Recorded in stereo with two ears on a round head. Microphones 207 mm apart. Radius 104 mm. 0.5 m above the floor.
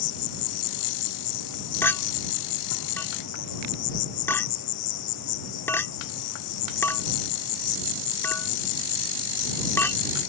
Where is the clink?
10° left (ahead or behind).